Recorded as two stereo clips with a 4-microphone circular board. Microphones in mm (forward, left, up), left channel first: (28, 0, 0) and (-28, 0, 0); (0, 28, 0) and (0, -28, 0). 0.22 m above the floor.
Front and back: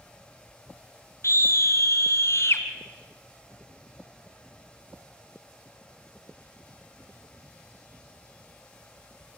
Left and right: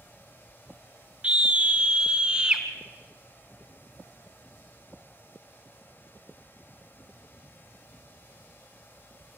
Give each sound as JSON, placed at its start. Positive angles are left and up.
{"t": 1.2, "sound": "a scream", "azimuth_deg": -25, "distance_m": 3.0}